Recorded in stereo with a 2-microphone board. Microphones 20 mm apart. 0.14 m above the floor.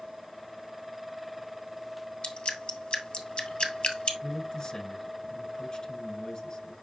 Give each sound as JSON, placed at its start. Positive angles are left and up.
{"t": 2.2, "sound": "dripping", "side_deg": 50, "distance_m": 1.6}
{"t": 4.2, "sound": "a man speaking", "side_deg": 40, "distance_m": 1.9}